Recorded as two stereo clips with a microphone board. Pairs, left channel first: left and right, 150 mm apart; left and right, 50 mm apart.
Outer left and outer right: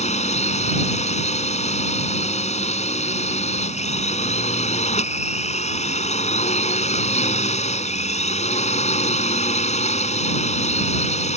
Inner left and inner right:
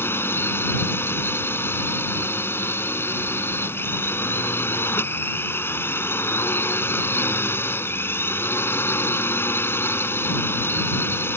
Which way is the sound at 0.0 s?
50° left (ahead or behind).